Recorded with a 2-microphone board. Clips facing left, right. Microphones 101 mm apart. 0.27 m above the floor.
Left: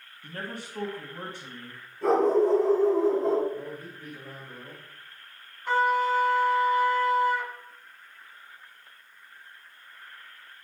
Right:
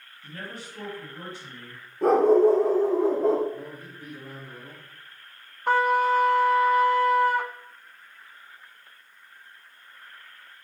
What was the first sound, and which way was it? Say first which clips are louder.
A man speaking: left 2 dB; 50° left (ahead or behind).